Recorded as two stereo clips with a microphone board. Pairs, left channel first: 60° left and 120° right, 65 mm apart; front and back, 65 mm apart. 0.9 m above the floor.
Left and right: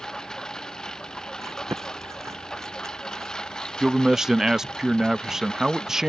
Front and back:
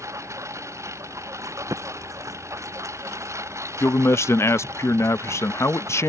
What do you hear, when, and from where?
0.0 s a lawn mower: 140° left
1.4 s chewing: 160° right
3.8 s a man speaking: 40° right